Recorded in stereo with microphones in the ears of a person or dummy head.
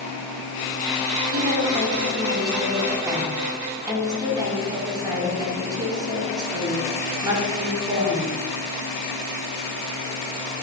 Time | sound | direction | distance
1.3 | a woman speaking | 25° right (ahead or behind) | 4.5 m